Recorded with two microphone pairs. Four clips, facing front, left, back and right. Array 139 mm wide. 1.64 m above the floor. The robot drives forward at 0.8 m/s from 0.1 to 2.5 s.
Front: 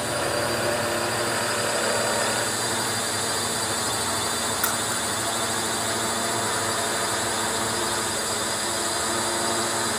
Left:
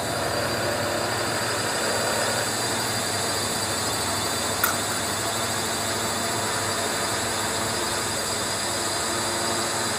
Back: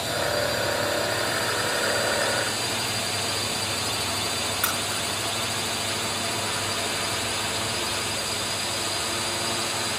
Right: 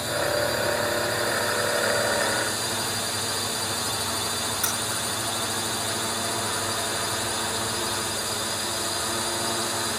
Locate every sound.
0.0 s a drone: 10° left; by 10.0 s 15° left
4.6 s keys jangling: 95° left